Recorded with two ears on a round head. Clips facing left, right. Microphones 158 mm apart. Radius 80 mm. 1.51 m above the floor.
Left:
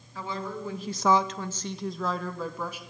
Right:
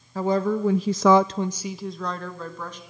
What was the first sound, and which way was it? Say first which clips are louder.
A woman speaking: right 12 dB; 35° right (ahead or behind).